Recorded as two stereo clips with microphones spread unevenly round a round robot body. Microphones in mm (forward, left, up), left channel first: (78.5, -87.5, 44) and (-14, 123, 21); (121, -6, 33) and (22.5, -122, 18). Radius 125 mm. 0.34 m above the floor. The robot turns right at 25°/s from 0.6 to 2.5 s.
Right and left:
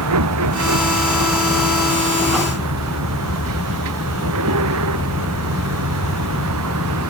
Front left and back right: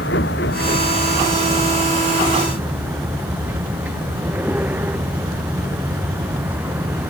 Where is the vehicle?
100° left; by 7.1 s 145° left.